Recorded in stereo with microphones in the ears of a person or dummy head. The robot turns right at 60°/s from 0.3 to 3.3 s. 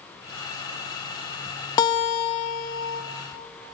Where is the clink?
I don't hear a clink.